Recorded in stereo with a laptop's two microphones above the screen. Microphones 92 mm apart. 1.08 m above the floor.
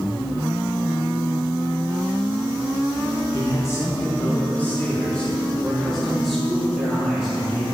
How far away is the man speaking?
About 1.4 m.